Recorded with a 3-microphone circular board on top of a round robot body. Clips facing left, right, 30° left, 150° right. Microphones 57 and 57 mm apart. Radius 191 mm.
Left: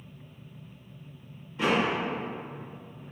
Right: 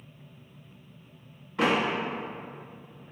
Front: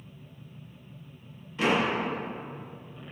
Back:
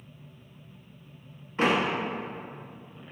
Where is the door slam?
100° right, 1.0 m.